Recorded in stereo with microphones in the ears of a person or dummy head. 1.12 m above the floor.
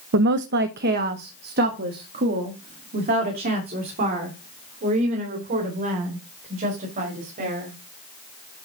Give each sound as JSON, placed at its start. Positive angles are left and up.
{"t": 0.1, "sound": "a woman speaking", "side_deg": -55, "distance_m": 0.6}